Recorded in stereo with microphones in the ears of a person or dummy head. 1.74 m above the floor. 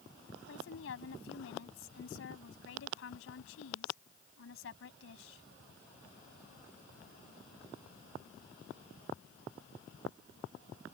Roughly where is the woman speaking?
Left.